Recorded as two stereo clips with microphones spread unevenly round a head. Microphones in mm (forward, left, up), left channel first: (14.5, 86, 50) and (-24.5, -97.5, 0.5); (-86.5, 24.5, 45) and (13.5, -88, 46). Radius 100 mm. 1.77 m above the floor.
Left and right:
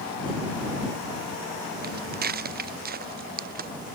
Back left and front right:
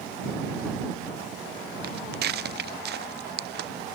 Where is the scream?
I don't hear a scream.